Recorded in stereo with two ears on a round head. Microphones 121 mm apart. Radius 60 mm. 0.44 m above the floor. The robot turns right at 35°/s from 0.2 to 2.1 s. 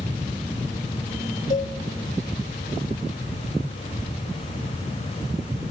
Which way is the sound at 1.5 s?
65° left (ahead or behind).